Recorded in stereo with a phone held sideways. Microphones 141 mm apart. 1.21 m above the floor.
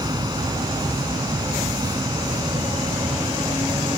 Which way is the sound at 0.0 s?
30° right (ahead or behind).